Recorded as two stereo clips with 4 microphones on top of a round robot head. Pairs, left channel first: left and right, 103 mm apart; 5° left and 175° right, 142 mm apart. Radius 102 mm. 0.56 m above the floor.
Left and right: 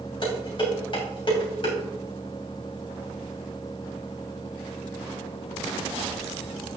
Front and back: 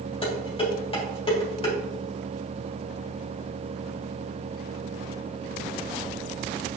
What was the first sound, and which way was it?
Dishes clattering, 55° left.